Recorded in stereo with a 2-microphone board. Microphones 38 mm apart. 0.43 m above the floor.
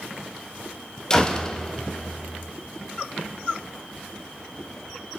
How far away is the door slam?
About 2 m.